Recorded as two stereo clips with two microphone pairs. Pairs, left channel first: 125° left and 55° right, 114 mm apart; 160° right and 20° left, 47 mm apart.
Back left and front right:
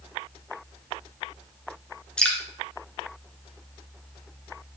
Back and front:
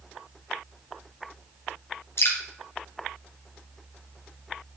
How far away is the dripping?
About 2 m.